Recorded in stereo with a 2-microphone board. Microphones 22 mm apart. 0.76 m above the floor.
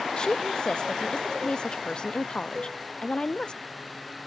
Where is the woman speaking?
40° left (ahead or behind), 0.5 m.